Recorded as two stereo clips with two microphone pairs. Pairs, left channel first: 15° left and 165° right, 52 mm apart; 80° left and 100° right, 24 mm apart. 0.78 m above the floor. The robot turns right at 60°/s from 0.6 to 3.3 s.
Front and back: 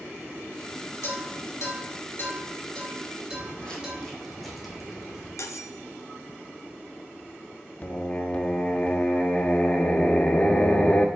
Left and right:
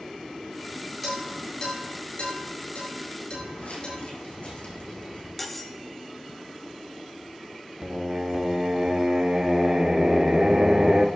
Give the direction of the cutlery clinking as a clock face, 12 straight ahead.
12 o'clock.